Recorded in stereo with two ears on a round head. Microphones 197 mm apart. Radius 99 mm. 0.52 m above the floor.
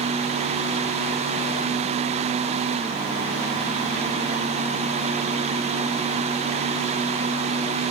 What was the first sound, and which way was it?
Only background noise.